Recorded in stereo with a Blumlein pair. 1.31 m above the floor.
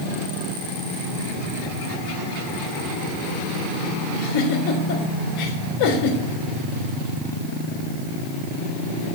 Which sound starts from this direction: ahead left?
A giggle, at 4.1 s.